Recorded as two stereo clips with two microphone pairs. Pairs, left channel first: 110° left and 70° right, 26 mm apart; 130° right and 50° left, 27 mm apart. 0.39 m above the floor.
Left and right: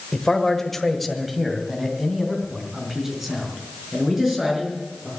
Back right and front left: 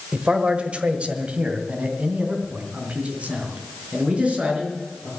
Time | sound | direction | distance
0.1 | a man speaking | 65° left | 1.2 m